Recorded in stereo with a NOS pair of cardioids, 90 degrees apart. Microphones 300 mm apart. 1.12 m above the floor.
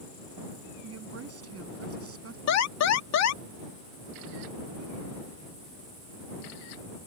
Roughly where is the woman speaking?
Ahead right.